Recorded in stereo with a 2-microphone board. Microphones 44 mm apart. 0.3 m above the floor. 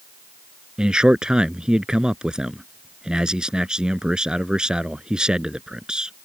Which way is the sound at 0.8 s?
20° right (ahead or behind).